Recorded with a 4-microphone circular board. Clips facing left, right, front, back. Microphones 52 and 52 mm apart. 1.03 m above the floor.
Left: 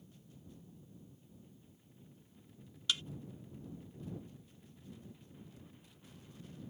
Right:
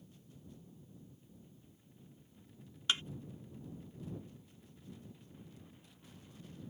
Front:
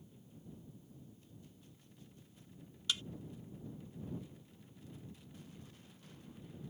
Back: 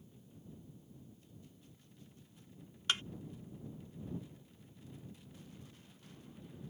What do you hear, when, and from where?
2.9 s a thud: 145° right